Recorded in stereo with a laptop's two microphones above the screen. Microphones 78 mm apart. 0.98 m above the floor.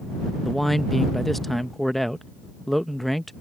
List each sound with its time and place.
0.4 s a man speaking: centre (ahead or behind)